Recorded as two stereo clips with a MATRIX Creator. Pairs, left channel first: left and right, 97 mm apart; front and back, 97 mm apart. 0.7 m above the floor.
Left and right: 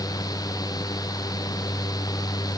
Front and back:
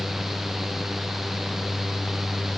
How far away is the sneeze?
No sneeze in this recording.